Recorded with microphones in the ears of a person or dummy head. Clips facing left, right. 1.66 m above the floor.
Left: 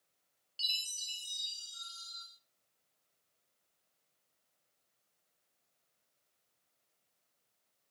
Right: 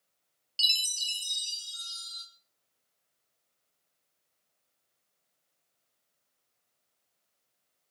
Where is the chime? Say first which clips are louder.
Right 9 dB; 35° right (ahead or behind), 1.2 m.